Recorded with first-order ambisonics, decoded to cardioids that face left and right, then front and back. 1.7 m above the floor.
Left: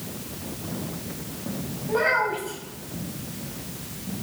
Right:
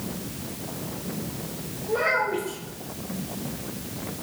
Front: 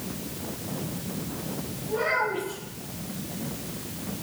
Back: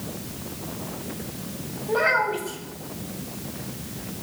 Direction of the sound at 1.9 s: 160° left.